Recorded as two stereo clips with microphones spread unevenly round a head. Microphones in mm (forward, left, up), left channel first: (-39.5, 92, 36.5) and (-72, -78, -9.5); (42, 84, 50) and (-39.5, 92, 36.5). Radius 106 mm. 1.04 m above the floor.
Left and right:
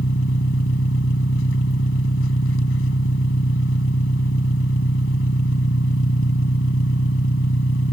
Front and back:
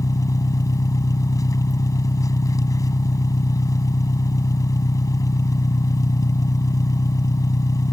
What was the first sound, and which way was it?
An engine running, 40° left.